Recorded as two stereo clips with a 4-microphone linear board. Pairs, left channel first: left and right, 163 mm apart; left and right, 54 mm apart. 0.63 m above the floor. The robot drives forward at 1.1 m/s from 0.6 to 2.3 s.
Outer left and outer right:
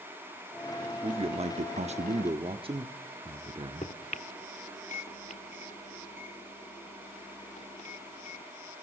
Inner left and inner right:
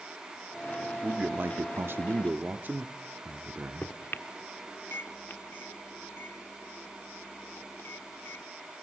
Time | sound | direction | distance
1.0 | a man speaking | 30° right (ahead or behind) | 1.1 m
3.8 | a microwave | 45° left (ahead or behind) | 1.2 m